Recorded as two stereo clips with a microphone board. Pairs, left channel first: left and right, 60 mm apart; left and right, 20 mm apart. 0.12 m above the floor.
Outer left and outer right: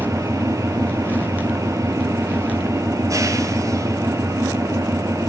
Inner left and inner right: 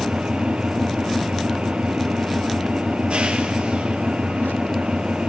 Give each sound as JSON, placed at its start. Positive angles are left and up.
{"t": 0.0, "sound": "an engine running", "side_deg": -60, "distance_m": 2.5}